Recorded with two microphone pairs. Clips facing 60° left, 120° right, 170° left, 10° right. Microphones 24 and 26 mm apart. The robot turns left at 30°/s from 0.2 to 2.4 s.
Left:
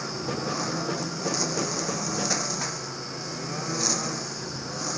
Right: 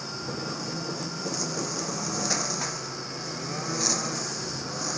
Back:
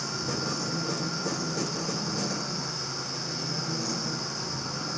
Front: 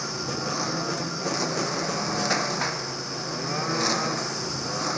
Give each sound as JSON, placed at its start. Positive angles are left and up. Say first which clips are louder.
{"t": 0.0, "sound": "a lawn mower", "louder": "left 3 dB, front 1 dB", "azimuth_deg": 40}